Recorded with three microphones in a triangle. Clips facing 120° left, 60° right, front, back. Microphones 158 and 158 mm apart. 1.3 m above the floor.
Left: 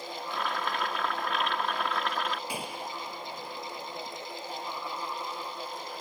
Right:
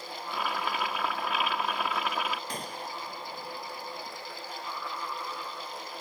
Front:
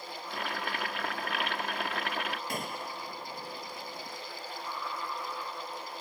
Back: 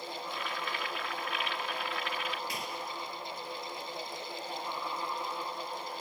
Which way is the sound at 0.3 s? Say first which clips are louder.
Right 1 dB, front 5 dB; 25° left.